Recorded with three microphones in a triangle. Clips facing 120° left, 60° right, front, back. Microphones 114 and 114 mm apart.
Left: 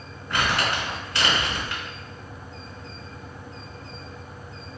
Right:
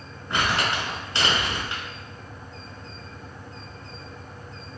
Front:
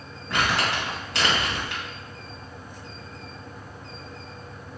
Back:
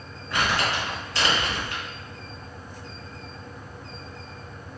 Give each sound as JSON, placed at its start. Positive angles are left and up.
{"t": 0.3, "sound": "crumpling", "azimuth_deg": 5, "distance_m": 1.5}